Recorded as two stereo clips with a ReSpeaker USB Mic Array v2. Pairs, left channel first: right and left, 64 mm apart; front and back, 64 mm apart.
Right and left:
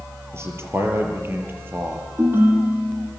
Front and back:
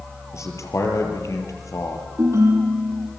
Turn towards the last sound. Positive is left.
turn(degrees=140)